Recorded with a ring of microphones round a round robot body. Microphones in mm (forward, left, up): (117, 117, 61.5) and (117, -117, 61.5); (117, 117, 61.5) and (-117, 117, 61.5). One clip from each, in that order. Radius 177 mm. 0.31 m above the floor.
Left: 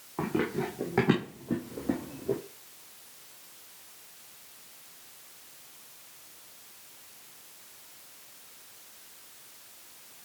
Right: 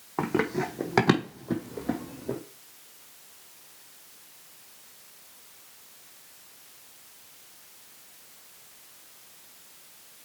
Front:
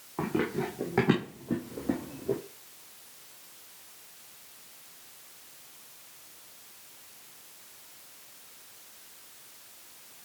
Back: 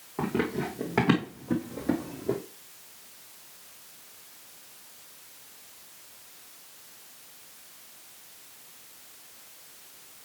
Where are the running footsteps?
80° right, 1.5 m; by 2.4 s 150° right, 1.1 m.